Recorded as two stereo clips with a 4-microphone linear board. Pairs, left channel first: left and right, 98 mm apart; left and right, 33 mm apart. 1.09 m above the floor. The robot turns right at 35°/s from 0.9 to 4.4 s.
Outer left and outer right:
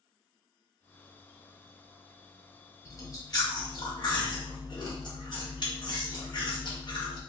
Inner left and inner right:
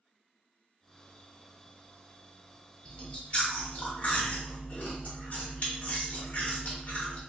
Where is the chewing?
45° left, 0.8 m; by 7.2 s 95° left, 0.8 m.